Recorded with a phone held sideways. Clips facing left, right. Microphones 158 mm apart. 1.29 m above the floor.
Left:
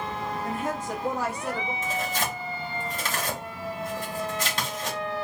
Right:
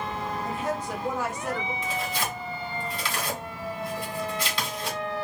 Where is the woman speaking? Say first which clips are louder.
Even; 60° left (ahead or behind), 1.0 m; by 1.7 s 30° left (ahead or behind), 1.4 m.